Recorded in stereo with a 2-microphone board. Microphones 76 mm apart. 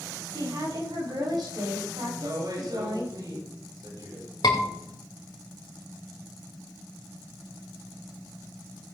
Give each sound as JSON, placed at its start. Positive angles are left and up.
{"t": 0.3, "sound": "a woman speaking", "side_deg": -70, "distance_m": 5.5}
{"t": 2.0, "sound": "a woman speaking", "side_deg": -70, "distance_m": 7.5}
{"t": 4.4, "sound": "a scream", "side_deg": 70, "distance_m": 2.5}